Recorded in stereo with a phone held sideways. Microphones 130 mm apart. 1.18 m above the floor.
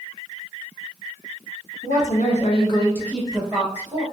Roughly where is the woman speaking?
Left.